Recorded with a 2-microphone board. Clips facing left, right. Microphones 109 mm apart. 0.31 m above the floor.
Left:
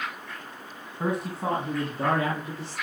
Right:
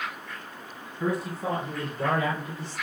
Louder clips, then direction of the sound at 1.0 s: Even; 60° left (ahead or behind).